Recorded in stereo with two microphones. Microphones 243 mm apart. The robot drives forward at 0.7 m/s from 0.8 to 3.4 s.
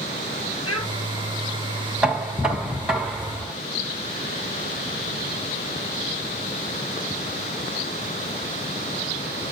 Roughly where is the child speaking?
Left.